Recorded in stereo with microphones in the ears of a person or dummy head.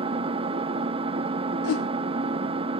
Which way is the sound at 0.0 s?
30° right (ahead or behind).